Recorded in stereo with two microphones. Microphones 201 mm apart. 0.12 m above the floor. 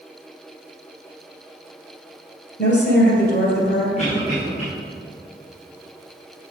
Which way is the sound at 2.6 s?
55° left (ahead or behind).